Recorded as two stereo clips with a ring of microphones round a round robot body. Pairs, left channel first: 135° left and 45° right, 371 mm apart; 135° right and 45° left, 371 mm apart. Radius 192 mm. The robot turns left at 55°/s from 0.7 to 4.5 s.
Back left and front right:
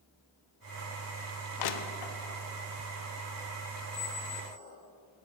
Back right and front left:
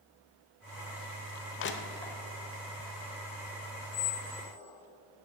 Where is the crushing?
170° left, 0.8 m; by 2.2 s 135° left, 0.8 m.